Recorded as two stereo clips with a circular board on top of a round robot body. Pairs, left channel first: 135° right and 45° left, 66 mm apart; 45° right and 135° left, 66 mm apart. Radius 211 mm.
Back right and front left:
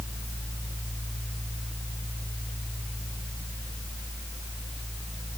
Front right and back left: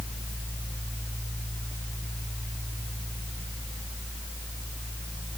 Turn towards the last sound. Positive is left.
No sound to turn to.